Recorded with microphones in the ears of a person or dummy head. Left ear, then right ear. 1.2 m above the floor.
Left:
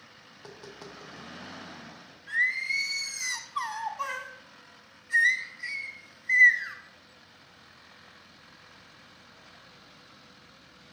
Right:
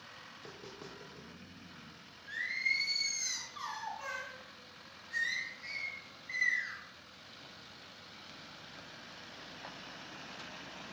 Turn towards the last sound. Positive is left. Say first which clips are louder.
# left 7 dB
turn(degrees=35)  # may be behind; listen again after turning